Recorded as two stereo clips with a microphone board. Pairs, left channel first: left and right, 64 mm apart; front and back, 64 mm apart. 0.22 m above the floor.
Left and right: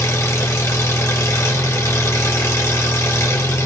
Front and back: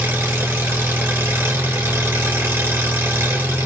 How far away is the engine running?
About 1.7 m.